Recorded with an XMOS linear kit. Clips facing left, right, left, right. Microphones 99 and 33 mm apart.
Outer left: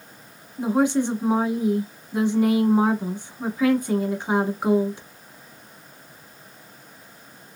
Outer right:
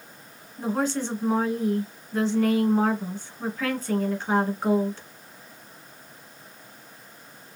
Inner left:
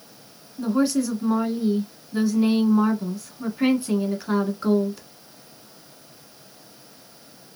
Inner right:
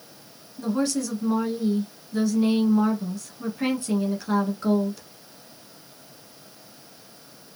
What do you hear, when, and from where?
0.6 s a woman speaking: 15° left (ahead or behind), 1.1 m